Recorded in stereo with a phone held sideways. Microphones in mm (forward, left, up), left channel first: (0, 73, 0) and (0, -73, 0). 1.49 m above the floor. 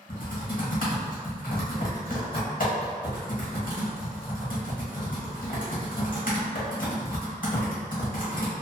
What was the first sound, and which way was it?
Typing on a keyboard, 70° left (ahead or behind).